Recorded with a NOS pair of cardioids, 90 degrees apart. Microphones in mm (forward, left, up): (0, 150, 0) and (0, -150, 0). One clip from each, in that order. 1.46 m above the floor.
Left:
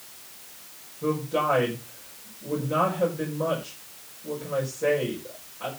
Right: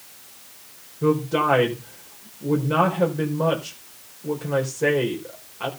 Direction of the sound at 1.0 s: 60° right.